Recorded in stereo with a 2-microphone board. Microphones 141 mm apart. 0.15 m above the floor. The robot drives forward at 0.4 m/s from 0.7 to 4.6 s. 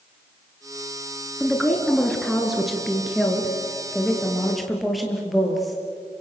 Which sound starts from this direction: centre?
A woman speaking, at 1.4 s.